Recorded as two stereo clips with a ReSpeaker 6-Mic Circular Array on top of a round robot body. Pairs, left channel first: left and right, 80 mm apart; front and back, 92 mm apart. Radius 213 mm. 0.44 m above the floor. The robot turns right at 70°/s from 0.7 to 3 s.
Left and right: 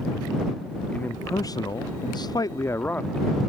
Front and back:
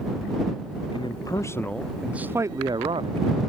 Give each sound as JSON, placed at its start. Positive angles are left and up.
{"t": 0.9, "sound": "a man speaking", "azimuth_deg": 20}